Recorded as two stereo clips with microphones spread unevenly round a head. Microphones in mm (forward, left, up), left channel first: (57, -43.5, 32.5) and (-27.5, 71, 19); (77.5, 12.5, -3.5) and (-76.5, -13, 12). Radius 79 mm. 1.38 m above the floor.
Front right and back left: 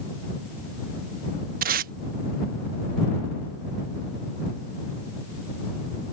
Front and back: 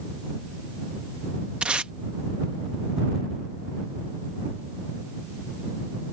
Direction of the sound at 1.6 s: 110° left.